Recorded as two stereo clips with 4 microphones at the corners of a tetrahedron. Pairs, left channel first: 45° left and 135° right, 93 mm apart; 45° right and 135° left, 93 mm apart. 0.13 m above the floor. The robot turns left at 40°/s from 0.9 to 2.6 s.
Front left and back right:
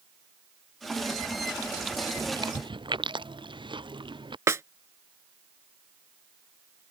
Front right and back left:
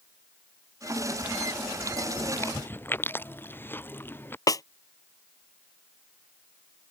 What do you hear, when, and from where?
2.2 s chewing: 95° right; by 4.4 s 110° right
4.5 s a snare drum: 85° right